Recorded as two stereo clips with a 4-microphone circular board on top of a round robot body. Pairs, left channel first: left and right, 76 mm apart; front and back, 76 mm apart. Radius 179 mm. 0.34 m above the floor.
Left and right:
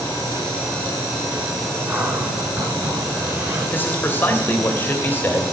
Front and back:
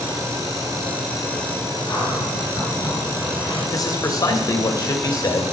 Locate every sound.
1.9 s a cupboard door: 30° right, 6.5 m
3.7 s a man speaking: 30° left, 3 m